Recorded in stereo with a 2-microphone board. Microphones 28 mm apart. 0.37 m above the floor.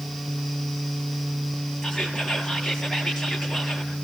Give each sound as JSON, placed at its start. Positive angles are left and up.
{"t": 1.8, "sound": "whispering", "side_deg": 10, "distance_m": 7.0}